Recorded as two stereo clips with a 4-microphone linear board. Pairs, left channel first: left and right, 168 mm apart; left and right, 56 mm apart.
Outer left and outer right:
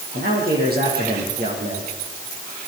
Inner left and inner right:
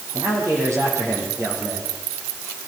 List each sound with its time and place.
0.1 s a man speaking: 65° right (ahead or behind), 8 m